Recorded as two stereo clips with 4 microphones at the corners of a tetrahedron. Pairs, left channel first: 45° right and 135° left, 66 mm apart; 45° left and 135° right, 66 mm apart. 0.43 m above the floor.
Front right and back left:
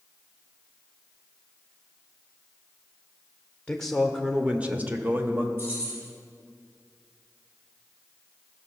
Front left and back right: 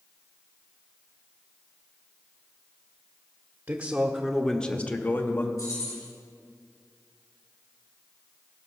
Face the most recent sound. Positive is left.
turn(degrees=75)